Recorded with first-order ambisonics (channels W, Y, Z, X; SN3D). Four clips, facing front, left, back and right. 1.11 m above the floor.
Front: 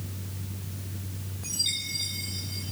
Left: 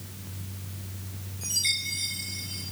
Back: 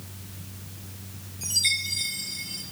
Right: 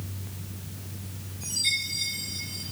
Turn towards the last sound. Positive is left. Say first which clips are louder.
# even, back 5 dB
turn(degrees=165)